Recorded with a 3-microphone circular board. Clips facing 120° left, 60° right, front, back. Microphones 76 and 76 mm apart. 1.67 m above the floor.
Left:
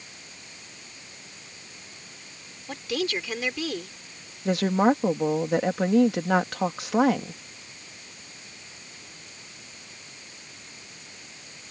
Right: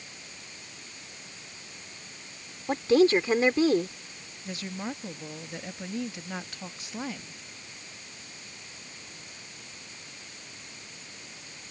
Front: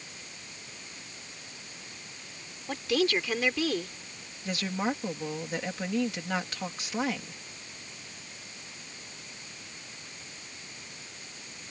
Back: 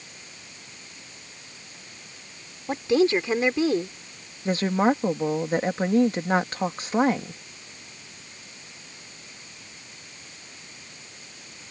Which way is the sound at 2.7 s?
120° right.